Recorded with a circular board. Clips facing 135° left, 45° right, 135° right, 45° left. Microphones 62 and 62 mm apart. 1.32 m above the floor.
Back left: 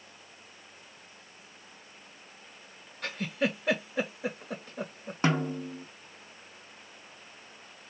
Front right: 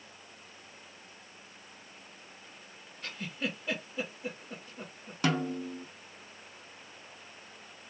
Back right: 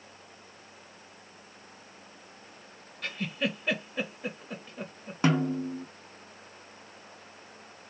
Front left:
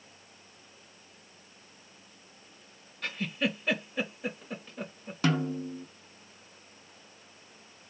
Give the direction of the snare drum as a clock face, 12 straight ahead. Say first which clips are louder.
Back left 2 dB, back right 3 dB; 6 o'clock.